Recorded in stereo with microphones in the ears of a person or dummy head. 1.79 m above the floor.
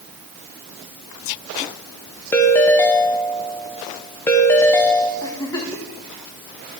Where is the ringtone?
10° left (ahead or behind), 0.9 m.